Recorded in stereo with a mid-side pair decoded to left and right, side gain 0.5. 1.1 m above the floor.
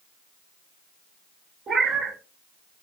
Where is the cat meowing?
45° right, 1.1 m.